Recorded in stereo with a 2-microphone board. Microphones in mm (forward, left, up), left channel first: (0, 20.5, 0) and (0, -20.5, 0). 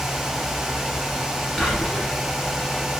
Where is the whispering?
10° left (ahead or behind), 1.0 m.